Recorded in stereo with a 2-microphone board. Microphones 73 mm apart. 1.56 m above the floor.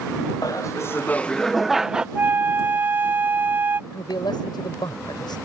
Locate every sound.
0.4 s laughter: 55° left (ahead or behind); by 2.0 s 15° right (ahead or behind)
2.1 s a flute: 30° right (ahead or behind)
3.9 s a man speaking: 75° left (ahead or behind)